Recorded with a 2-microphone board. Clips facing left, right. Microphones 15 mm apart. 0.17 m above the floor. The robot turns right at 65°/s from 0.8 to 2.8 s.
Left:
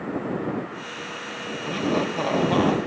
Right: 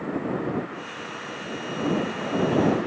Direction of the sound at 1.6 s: 70° left.